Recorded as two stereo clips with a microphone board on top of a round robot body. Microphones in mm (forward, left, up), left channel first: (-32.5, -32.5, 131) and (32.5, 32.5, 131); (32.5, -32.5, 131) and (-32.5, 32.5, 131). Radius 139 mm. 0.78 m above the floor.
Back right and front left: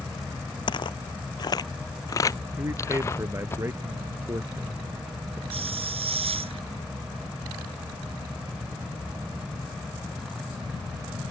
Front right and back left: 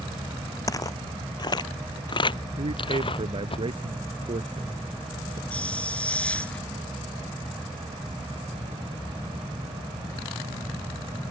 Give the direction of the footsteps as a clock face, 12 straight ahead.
3 o'clock.